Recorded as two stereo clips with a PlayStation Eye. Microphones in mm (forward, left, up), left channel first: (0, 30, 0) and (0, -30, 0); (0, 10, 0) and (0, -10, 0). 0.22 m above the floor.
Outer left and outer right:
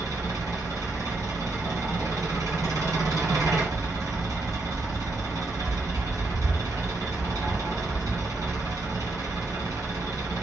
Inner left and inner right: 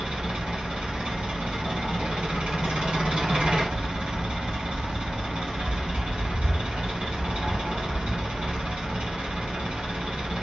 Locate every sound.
0.0 s an engine running: 70° right (ahead or behind), 2.5 m